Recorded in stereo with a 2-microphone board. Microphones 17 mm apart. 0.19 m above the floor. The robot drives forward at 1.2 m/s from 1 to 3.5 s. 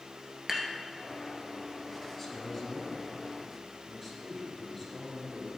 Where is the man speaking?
10° left (ahead or behind), 2.0 m; by 5.5 s 5° left (ahead or behind), 3.5 m.